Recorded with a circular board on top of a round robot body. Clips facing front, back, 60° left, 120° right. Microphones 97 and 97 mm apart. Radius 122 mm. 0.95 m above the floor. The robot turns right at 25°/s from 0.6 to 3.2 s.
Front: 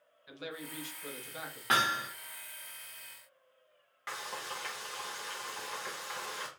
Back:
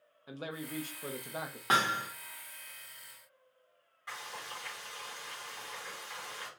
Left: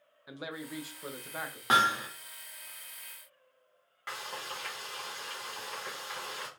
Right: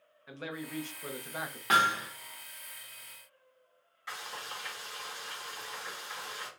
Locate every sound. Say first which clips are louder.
0.3 s a man speaking: back 3 dB, right 1 dB; 135° left, 0.8 m; by 1.6 s 160° left, 0.8 m
1.7 s hammering: even, left 1 dB; 120° left, 0.6 m; by 2.1 s 130° left, 0.6 m
4.1 s frying: front 3 dB, left 2 dB; 25° left, 1.0 m